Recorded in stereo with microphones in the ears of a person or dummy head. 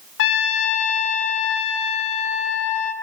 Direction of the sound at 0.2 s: 70° left (ahead or behind).